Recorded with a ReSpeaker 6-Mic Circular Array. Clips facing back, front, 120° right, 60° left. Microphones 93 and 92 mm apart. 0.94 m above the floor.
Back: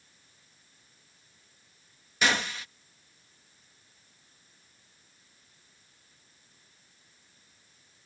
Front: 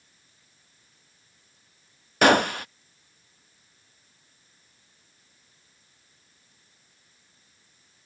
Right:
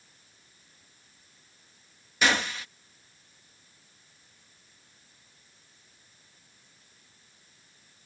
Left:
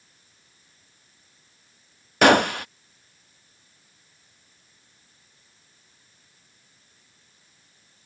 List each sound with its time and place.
2.2 s a gunshot: 30° left